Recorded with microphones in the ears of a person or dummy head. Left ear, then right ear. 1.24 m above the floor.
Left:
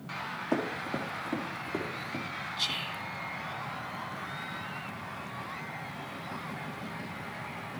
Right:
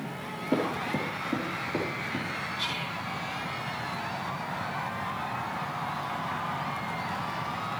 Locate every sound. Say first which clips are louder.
0.5 s running footsteps: right 4 dB; 40° left (ahead or behind), 4 m; by 2.2 s 35° left (ahead or behind), 6 m
2.6 s whispering: left 3 dB; 25° left (ahead or behind), 2 m